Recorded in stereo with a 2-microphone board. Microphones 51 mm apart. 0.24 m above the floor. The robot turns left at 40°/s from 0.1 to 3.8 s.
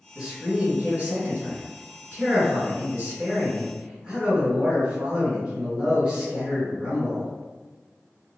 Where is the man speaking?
10° right, 1.8 m; by 7.3 s 155° right, 1.8 m.